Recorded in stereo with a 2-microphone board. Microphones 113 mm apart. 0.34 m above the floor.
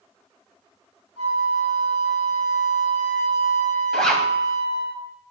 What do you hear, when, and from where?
1.2 s a flute: 75° right (ahead or behind), 3.5 m
3.9 s a zipper: 5° left (ahead or behind), 1.3 m